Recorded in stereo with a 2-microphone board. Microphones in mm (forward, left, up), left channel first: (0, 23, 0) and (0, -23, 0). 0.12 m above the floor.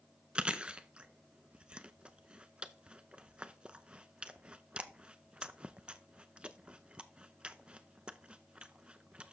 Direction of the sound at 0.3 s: 20° right (ahead or behind).